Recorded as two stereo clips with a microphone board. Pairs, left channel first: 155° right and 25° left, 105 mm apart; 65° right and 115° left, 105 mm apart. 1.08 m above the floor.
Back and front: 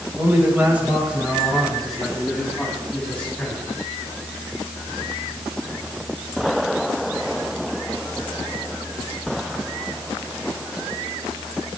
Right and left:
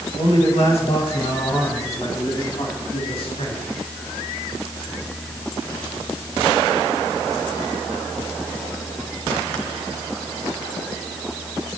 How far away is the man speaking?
About 6 m.